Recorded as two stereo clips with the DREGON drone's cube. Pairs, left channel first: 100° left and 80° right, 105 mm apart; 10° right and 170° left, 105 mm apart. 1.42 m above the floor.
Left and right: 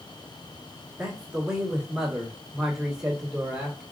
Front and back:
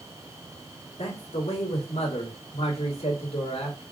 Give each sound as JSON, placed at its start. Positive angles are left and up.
{"t": 1.0, "sound": "a man speaking", "azimuth_deg": 5, "distance_m": 2.0}